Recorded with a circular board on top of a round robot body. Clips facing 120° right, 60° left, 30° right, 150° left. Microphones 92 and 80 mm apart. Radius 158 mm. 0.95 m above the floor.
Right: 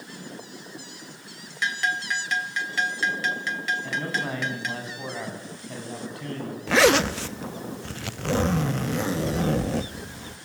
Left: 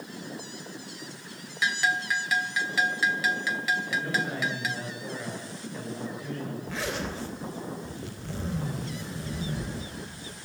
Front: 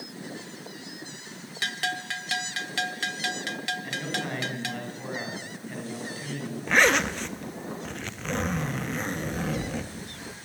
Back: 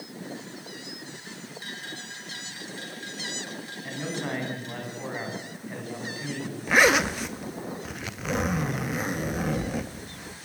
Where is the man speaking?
130° right, 9.5 m.